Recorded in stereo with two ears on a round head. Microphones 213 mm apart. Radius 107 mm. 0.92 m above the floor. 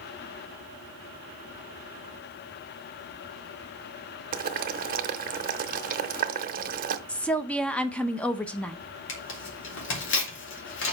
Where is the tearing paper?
55° left (ahead or behind), 3 m.